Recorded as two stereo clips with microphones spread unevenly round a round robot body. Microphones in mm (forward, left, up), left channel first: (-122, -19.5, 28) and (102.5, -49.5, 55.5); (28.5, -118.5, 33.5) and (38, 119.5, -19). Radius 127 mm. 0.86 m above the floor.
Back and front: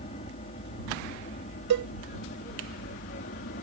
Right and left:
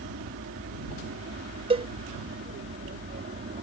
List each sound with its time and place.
0.0 s an aircraft: 120° left; by 3.6 s 135° left
1.7 s a cowbell: 15° left